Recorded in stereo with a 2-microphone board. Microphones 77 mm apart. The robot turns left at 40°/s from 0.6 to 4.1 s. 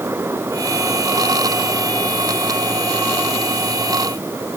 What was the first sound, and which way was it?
Only background noise.